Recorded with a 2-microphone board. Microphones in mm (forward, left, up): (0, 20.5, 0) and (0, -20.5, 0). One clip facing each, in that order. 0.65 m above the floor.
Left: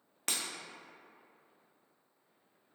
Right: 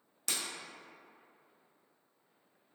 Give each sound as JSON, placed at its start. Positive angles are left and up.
{"t": 0.3, "sound": "breaking glass", "side_deg": 50, "distance_m": 0.5}